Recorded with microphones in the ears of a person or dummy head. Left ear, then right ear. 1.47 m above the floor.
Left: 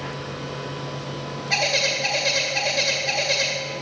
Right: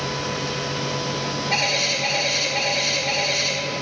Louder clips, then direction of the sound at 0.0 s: Right 6 dB; 80° right.